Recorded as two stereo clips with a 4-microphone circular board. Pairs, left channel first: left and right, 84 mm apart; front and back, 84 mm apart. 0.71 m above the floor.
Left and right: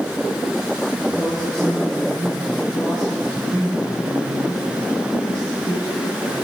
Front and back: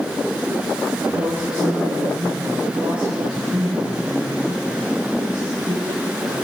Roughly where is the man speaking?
Behind.